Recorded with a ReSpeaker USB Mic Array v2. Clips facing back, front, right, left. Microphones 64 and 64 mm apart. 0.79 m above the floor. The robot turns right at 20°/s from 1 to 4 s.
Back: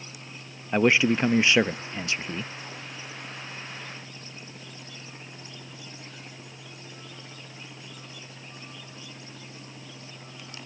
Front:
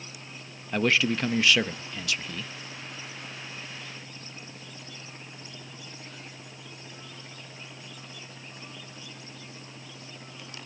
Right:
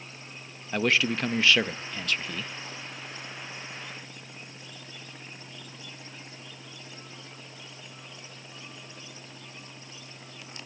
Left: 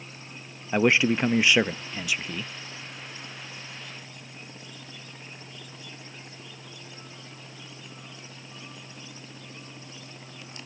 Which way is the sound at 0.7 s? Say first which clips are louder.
Back 4 dB, left 4 dB; 140° left.